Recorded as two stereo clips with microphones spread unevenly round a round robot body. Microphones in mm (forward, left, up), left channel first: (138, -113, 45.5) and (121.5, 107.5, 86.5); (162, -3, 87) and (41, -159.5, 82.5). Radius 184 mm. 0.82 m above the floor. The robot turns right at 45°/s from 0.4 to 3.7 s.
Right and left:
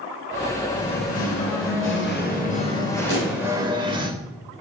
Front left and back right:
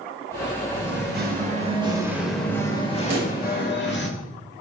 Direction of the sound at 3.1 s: 165° left.